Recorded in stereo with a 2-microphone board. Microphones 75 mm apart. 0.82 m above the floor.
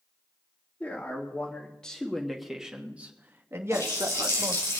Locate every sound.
0.8 s a man speaking: 25° left (ahead or behind), 2.0 m; by 4.7 s 55° right (ahead or behind), 1.6 m
3.7 s a running tap: 40° left (ahead or behind), 4 m